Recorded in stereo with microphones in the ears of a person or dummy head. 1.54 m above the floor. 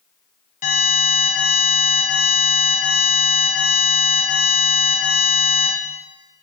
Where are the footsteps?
No footsteps in this recording.